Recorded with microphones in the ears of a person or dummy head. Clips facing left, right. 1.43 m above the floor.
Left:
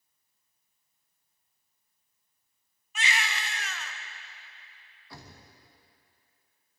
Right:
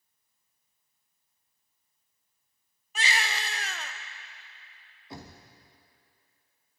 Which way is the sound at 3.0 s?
35° right (ahead or behind).